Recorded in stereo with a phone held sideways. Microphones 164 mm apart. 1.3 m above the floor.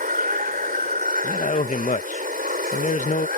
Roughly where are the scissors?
No scissors in this recording.